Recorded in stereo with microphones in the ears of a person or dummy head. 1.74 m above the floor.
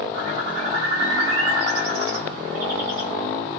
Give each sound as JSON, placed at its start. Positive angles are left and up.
{"t": 0.1, "sound": "a bird", "side_deg": -60, "distance_m": 1.7}